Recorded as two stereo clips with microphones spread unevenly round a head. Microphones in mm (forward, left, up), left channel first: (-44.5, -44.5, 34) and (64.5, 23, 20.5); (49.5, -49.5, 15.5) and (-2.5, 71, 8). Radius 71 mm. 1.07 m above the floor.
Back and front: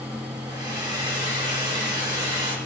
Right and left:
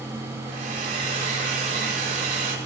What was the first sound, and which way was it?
A hair dryer, 90° left.